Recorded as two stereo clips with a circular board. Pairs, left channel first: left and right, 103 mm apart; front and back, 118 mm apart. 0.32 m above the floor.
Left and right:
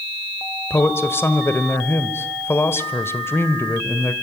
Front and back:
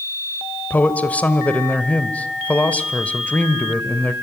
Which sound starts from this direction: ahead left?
A man speaking, at 0.7 s.